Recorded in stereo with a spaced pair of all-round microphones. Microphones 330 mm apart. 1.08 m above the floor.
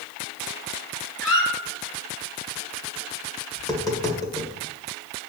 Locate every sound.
1.2 s a squeak: 50° left (ahead or behind), 3 m
3.6 s tapping: 10° left (ahead or behind), 1.8 m